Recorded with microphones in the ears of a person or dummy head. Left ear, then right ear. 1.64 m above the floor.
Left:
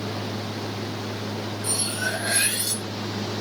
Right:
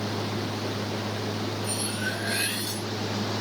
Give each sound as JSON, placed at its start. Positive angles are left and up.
{"t": 1.6, "sound": "cutlery clinking", "side_deg": 15, "distance_m": 0.8}